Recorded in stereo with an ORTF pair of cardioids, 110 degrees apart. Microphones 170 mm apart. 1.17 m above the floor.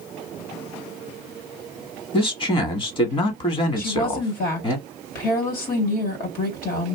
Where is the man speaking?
30° left, 1.4 m.